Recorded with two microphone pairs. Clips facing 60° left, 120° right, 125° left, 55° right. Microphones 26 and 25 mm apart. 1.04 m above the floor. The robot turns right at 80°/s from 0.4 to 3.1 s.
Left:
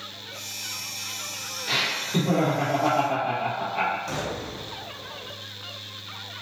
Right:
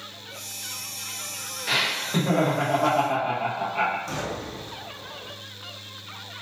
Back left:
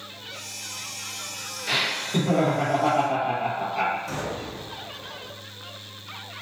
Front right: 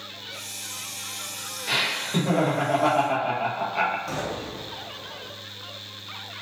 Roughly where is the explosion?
Ahead.